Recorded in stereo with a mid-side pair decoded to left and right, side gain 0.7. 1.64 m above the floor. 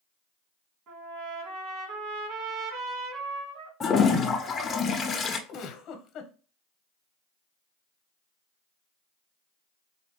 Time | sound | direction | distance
0.9 | a trumpet | 45° right | 2.5 m
3.8 | a toilet flushing | 25° left | 1.0 m
5.5 | a giggle | 45° left | 1.2 m